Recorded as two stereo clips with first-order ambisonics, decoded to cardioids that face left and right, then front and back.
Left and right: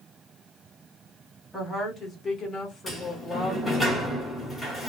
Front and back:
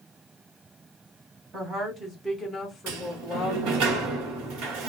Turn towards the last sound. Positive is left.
turn(degrees=170)